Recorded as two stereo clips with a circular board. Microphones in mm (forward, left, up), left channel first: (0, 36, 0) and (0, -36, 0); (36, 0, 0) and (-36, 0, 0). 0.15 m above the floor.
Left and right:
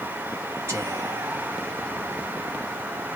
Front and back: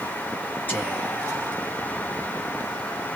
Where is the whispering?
55° right, 2 m.